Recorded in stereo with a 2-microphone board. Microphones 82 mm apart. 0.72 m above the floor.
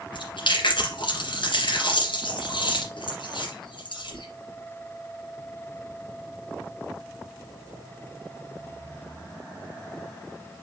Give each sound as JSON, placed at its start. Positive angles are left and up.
{"t": 0.1, "sound": "chewing", "side_deg": 80, "distance_m": 3.0}